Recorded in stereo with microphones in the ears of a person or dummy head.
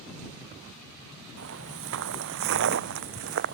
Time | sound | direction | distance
1.4 | footsteps | 70° right (ahead or behind) | ?